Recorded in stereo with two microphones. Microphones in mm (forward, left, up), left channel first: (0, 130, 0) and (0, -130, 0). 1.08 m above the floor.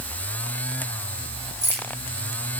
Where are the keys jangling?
40° right (ahead or behind), 7 m.